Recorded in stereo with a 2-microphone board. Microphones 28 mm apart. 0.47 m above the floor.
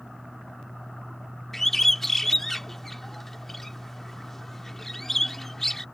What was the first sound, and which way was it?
A bird, 10° left (ahead or behind).